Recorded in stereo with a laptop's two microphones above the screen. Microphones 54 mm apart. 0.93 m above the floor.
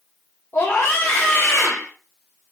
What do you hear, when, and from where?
0.5 s a scream: 40° left (ahead or behind), 4.5 m